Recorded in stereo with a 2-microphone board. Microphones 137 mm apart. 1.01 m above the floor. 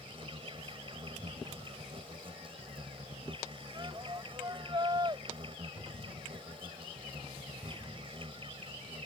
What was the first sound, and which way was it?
An insect, 40° right (ahead or behind).